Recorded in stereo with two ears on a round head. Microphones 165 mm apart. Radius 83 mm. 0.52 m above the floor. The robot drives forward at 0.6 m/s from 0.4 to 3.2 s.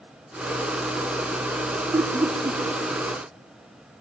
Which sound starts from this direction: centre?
Laughter, at 1.9 s.